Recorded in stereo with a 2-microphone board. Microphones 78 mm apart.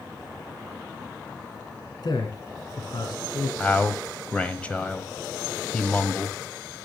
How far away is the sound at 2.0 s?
About 2.5 m.